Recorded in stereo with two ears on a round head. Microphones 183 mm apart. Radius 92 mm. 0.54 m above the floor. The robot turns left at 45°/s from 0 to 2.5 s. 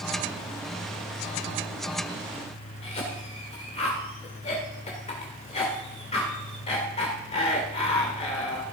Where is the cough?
30° left (ahead or behind), 1.9 m.